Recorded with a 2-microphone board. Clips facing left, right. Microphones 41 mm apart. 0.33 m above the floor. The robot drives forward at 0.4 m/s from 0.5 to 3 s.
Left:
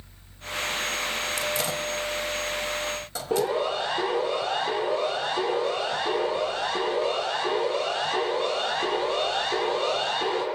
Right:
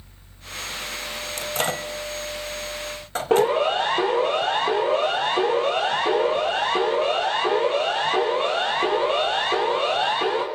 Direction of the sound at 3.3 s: 65° right (ahead or behind).